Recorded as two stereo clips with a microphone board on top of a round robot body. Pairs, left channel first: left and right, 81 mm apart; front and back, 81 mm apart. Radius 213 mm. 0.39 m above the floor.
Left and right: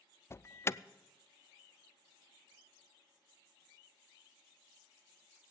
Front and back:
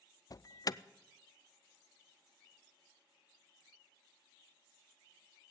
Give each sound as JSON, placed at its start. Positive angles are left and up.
{"t": 0.3, "sound": "an alarm", "azimuth_deg": 35, "distance_m": 0.6}